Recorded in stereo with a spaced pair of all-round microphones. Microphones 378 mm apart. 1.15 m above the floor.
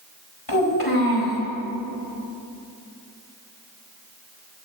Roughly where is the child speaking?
Left.